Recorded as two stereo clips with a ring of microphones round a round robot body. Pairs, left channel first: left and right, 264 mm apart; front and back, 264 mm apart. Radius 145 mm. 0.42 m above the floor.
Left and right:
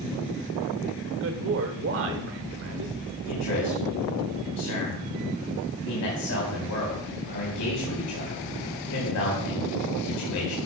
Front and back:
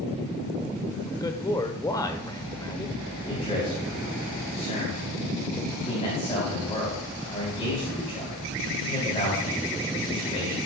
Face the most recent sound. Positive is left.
turn(degrees=70)